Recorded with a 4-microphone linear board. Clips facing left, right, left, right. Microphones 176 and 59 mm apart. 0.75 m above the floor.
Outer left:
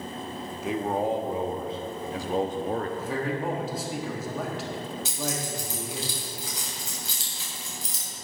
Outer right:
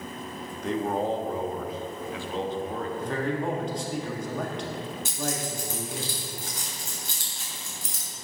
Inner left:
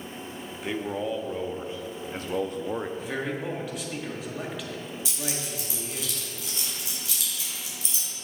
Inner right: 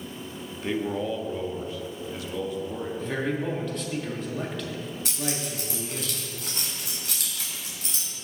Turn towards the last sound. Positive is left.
turn(degrees=-55)  # may be behind; listen again after turning